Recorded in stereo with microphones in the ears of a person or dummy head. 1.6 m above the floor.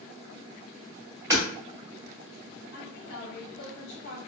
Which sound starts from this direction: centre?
Hammering, at 1.3 s.